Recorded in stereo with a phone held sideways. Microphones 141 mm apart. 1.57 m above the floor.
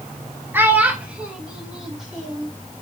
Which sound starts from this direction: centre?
A child speaking, at 0.5 s.